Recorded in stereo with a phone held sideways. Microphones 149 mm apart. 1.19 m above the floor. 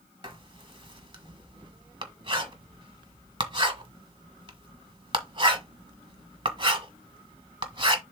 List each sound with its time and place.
0.2 s writing: 30° right (ahead or behind), 1.4 m